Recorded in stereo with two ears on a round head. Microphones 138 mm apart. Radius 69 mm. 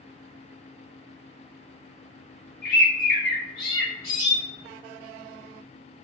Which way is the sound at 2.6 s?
60° left (ahead or behind).